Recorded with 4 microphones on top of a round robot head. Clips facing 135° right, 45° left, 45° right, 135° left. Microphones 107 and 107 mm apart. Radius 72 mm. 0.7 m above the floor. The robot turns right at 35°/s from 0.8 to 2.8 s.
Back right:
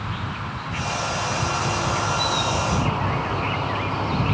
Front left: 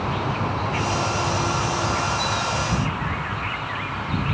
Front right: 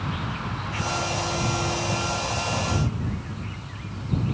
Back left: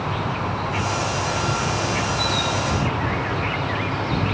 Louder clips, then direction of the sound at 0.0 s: Front left 6 dB, back left 6 dB; 90° left.